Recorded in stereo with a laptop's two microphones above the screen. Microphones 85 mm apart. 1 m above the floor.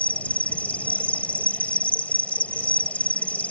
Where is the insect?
20° left (ahead or behind).